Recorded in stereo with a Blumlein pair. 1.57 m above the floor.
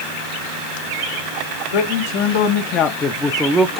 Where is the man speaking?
55° left, 1.1 m; by 3.8 s 25° right, 0.5 m.